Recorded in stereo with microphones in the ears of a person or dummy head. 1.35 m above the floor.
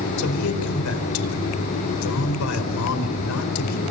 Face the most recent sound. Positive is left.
turn(degrees=85)